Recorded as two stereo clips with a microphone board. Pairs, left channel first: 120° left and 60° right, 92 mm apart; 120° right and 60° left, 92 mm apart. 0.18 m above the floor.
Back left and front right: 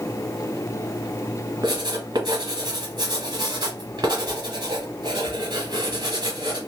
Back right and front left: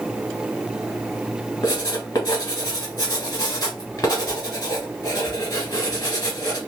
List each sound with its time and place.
1.6 s writing: 90° right, 1.3 m